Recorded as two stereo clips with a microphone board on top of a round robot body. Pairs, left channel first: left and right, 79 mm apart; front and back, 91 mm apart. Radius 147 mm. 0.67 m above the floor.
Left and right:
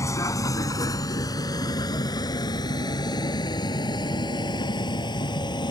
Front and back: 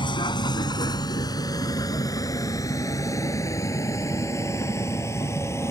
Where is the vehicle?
40° left; by 5.7 s 60° left.